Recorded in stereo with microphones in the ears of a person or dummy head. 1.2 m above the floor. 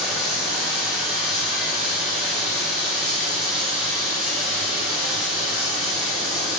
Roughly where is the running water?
Centre.